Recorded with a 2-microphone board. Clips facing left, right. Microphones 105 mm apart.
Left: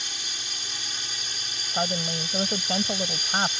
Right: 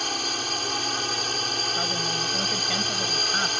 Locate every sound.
0.0 s a drone: 65° right (ahead or behind)
1.7 s a woman speaking: 35° left (ahead or behind)